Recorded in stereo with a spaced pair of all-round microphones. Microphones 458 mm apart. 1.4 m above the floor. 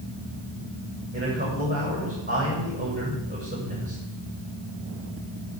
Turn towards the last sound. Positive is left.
turn(degrees=-20)  # may be behind; listen again after turning